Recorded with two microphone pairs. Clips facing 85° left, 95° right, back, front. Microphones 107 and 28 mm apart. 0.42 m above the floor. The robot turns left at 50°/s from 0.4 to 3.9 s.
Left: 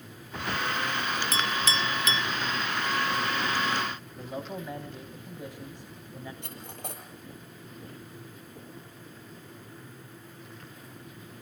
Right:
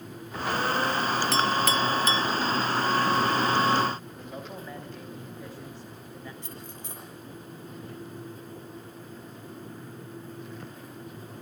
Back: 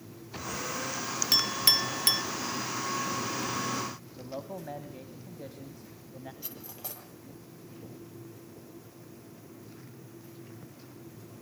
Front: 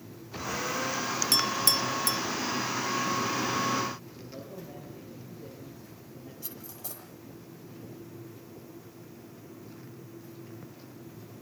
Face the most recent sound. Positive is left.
turn(degrees=115)